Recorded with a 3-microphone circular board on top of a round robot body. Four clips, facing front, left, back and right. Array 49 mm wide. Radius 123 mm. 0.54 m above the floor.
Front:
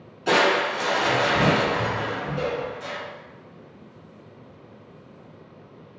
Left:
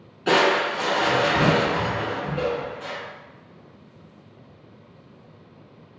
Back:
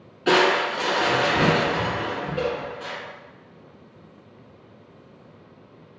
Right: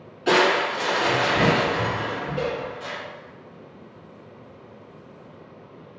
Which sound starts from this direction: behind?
Crushing, at 0.3 s.